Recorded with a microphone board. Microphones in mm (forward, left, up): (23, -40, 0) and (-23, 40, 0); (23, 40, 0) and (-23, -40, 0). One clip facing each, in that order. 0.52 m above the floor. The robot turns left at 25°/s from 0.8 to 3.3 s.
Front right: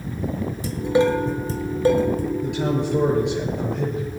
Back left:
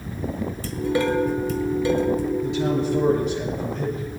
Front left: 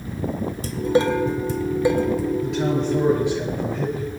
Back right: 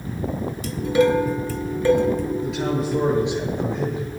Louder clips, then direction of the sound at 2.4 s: Back left 1 dB, front left 2 dB; 30° right.